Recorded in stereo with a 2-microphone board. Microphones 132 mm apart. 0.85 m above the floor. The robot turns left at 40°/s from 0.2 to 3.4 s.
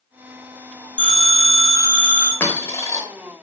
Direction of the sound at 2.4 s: 15° left (ahead or behind).